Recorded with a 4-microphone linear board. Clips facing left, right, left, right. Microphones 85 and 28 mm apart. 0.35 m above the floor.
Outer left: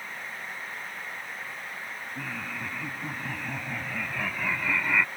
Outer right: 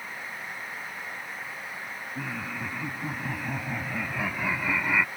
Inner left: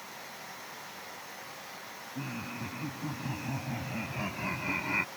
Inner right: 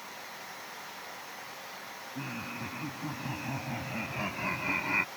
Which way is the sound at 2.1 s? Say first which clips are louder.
Outer right 2 dB, even; 10° right (ahead or behind).